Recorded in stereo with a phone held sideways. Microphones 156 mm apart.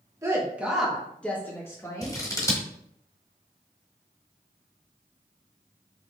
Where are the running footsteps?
No running footsteps in this recording.